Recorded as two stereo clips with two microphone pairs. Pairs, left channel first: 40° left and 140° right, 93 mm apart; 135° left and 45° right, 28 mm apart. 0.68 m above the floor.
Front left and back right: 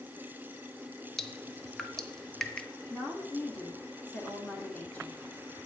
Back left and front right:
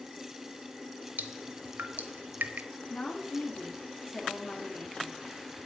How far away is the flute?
I don't hear a flute.